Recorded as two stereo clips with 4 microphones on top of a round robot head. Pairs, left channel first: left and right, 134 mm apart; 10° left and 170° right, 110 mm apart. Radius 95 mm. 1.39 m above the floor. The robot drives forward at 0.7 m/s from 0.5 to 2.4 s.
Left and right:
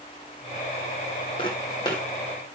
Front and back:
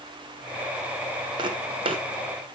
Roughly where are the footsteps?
Behind left.